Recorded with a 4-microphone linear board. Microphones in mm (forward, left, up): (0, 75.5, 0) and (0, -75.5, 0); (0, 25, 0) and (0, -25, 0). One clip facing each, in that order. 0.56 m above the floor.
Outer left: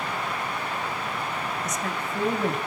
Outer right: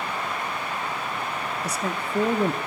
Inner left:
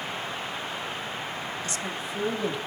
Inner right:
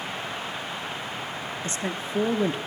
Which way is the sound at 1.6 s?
30° right (ahead or behind).